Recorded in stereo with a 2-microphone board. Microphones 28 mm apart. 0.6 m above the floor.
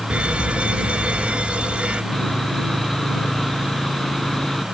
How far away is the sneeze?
I don't hear a sneeze.